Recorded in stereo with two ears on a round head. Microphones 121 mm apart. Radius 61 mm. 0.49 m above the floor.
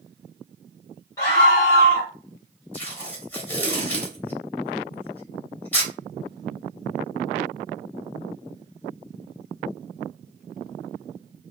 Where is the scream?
25° left (ahead or behind), 1.0 m.